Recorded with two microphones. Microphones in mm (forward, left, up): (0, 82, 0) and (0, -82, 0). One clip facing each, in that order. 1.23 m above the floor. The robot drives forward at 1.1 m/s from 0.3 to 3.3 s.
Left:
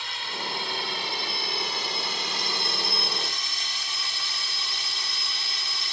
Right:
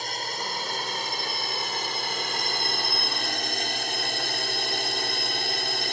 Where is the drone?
40° right (ahead or behind); by 5.9 s 55° right (ahead or behind).